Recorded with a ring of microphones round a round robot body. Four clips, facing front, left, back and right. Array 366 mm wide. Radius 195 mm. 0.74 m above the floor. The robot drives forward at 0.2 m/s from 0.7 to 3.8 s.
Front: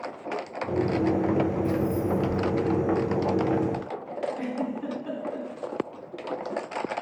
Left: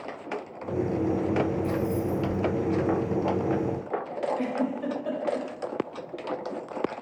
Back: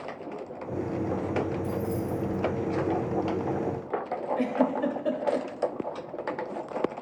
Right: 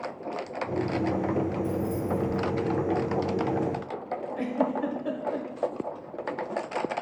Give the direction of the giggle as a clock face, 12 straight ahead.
6 o'clock.